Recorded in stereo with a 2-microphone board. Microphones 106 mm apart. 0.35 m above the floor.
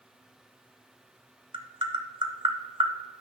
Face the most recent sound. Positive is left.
turn(degrees=-50)  # may be behind; listen again after turning